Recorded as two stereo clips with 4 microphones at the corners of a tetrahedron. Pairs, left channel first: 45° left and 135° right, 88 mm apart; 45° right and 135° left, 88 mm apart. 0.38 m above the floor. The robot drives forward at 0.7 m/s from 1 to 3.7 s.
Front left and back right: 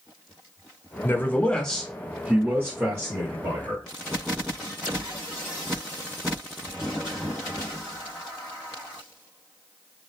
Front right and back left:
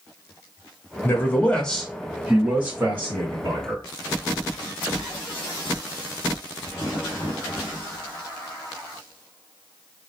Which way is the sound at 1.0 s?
5° right.